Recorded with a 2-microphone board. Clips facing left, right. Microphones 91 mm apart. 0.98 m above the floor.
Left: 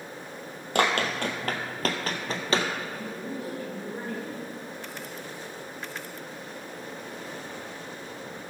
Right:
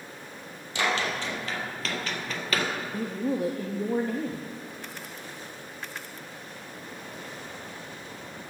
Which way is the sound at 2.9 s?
80° right.